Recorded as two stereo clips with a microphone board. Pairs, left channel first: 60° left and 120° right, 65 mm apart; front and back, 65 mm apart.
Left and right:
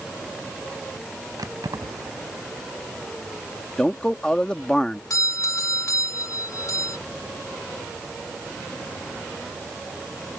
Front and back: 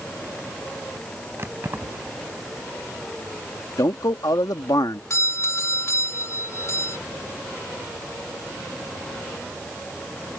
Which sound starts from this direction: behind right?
Keys jangling, at 1.4 s.